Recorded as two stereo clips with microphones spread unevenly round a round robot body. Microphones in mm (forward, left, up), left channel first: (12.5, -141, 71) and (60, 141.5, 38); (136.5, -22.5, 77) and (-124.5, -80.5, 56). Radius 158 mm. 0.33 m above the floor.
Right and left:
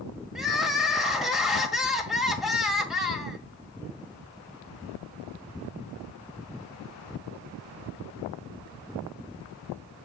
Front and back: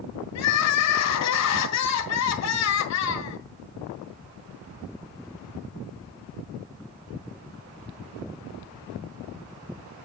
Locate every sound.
0.3 s crying: 5° right, 1.5 m